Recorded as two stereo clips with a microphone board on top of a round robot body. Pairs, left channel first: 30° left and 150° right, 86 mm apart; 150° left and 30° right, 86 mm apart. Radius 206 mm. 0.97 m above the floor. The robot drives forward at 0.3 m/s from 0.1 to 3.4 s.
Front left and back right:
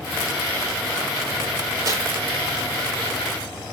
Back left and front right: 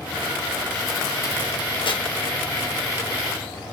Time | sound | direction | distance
1.9 | tearing paper | 160° left | 4 m